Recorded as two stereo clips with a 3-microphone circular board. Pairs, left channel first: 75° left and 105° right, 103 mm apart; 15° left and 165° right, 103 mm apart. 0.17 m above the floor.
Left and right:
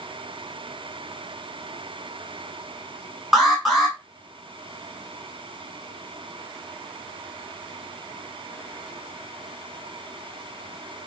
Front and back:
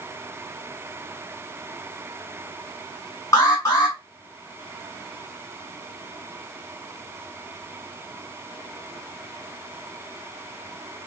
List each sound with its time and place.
3.3 s an alarm: 15° right, 1.4 m